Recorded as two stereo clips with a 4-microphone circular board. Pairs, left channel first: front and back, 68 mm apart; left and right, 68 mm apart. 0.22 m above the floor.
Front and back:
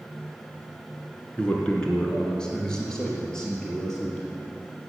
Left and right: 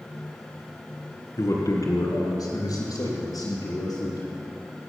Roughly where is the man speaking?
Left.